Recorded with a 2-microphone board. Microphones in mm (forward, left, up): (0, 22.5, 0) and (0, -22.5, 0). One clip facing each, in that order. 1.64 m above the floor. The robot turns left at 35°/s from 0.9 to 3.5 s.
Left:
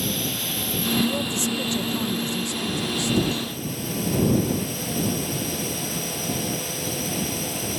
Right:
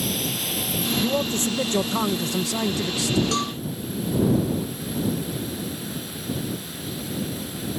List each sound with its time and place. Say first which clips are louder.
0.0 s a drone: even; straight behind; by 7.8 s 90° left
1.0 s a man speaking: right 1 dB; 25° right; by 3.2 s 105° right
3.3 s a cowbell: right 4 dB; 75° right (ahead or behind); by 3.5 s 70° right (ahead or behind)